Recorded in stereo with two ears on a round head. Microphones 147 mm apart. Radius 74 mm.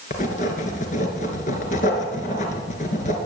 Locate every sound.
0.1 s writing: 45° left (ahead or behind), 3 m